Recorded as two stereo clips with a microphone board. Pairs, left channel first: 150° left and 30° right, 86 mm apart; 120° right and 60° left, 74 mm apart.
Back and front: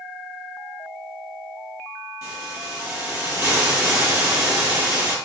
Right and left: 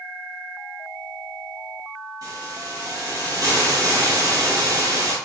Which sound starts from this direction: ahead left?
A hiss, at 2.2 s.